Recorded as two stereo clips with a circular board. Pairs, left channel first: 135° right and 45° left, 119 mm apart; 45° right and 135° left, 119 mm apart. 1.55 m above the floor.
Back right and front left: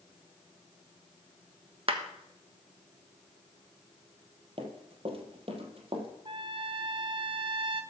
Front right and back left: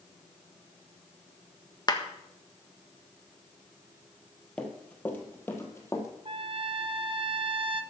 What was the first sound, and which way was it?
A clap, 10° left.